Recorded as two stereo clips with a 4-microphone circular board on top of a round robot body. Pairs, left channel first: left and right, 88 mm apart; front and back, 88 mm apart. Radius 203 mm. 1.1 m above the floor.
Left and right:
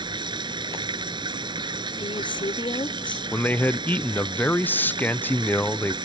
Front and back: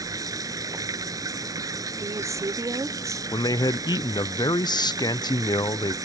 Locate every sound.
0.0 s running water: 130° right
2.0 s a woman speaking: 125° left
3.3 s a man speaking: 25° left